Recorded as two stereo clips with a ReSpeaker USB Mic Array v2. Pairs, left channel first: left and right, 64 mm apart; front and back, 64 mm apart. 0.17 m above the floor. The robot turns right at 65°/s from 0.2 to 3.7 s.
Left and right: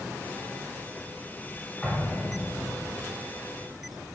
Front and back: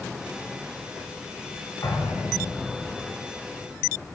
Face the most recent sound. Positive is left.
turn(degrees=130)